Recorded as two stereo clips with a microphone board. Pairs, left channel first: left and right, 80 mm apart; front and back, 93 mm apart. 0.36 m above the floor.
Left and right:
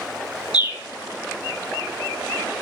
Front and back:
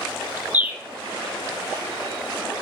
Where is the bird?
110° left, 1.0 m.